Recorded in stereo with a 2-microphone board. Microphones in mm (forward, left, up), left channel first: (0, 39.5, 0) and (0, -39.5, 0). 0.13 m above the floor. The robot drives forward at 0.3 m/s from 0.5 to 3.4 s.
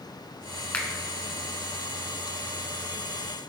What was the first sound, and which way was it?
A finger snap, 20° left (ahead or behind).